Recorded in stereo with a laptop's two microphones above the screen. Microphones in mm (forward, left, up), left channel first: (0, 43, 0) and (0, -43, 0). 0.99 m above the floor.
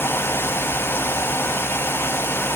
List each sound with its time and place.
0.0 s a fan: 30° left (ahead or behind), 0.7 m